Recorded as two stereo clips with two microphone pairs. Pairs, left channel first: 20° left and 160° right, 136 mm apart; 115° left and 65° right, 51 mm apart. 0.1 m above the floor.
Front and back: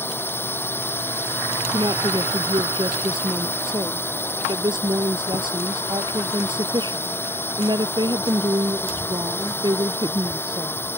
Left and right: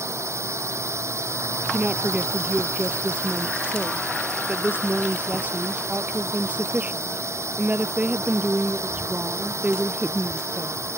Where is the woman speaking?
115° right.